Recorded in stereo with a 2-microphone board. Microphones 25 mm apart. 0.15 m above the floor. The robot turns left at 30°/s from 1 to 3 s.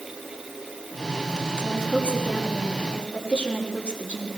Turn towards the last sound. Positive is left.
turn(degrees=65)